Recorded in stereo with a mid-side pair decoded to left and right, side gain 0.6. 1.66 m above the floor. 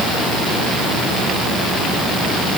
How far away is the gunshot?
No gunshot in this recording.